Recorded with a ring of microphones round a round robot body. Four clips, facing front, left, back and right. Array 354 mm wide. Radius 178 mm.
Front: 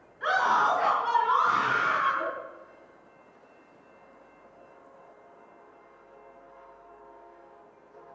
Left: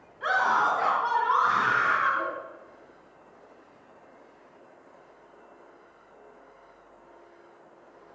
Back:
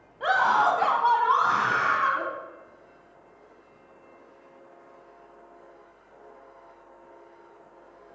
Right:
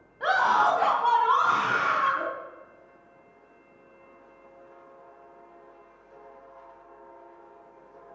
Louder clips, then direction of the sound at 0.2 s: Right 2 dB, back 3 dB; 145° right.